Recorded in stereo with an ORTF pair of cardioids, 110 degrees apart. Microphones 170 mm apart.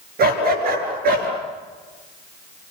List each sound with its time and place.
0.2 s a dog barking: 65° right, 8.5 m